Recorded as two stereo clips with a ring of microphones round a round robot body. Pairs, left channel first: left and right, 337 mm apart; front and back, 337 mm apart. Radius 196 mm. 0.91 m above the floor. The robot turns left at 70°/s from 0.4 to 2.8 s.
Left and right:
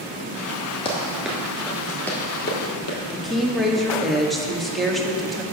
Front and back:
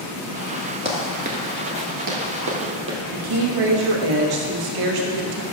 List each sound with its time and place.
0.8 s running footsteps: 135° left, 0.9 m; by 3.0 s 130° left, 2 m
3.1 s a woman speaking: straight behind, 1.2 m